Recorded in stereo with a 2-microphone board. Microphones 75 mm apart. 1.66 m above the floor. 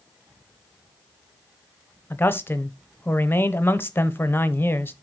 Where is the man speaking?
30° left (ahead or behind), 0.8 m.